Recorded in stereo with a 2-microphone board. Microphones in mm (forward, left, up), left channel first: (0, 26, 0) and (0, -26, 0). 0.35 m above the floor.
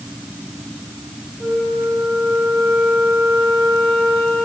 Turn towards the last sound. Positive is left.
turn(degrees=5)  # may be behind; listen again after turning